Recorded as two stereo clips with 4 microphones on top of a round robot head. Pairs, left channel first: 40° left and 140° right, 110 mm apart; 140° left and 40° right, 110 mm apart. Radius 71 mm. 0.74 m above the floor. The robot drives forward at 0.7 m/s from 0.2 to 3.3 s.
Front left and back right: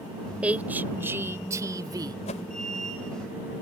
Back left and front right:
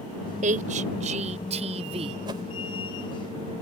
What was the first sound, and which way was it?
A woman speaking, 60° right.